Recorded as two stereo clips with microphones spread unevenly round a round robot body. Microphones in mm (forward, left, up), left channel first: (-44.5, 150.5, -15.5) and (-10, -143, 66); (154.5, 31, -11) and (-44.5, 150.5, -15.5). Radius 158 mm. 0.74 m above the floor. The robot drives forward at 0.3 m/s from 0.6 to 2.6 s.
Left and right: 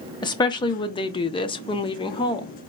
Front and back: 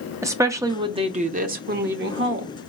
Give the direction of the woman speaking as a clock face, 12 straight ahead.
9 o'clock.